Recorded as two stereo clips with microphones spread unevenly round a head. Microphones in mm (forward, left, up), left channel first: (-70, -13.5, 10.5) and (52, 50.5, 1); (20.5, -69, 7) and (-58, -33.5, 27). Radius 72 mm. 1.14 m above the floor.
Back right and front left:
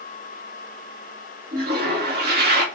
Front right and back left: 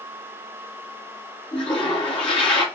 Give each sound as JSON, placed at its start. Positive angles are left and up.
{"t": 1.5, "sound": "a toilet flushing", "azimuth_deg": 25, "distance_m": 2.0}